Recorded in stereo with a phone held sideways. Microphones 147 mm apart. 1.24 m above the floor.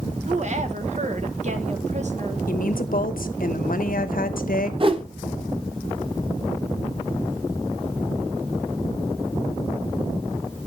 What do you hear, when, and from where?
0.3 s a woman speaking: 55° right (ahead or behind), 1.3 m
2.5 s a woman speaking: 75° left (ahead or behind), 0.9 m
4.8 s a whoosh: 40° right (ahead or behind), 0.9 m